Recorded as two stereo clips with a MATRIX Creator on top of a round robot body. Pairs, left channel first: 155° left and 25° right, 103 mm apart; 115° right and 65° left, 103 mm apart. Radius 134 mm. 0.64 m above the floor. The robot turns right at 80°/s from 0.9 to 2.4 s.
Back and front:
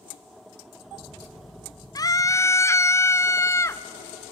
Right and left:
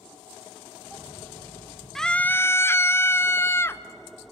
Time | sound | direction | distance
1.9 | a scream | 160° left | 0.8 m